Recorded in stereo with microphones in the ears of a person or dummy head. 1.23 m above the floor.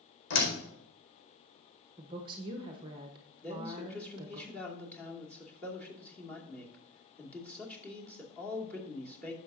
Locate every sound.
0.3 s a door slam: 65° left (ahead or behind), 4 m
2.0 s a woman speaking: 20° right (ahead or behind), 1.0 m
3.4 s a man speaking: 10° left (ahead or behind), 2.5 m